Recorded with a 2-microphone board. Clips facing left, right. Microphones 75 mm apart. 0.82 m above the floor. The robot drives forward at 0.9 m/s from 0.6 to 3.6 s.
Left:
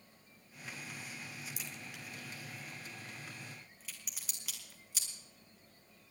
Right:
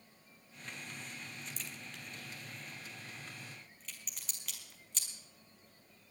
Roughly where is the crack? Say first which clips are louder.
Even; centre.